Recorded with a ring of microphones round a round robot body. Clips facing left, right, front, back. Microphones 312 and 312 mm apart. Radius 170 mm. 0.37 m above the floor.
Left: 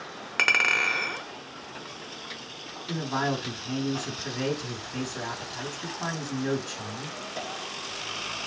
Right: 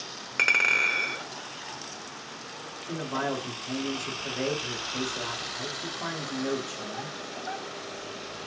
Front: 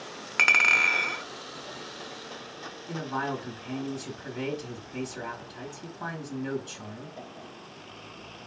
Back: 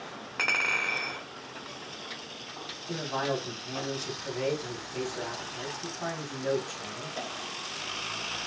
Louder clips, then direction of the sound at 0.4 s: Left 2 dB, front 2 dB; 10° left.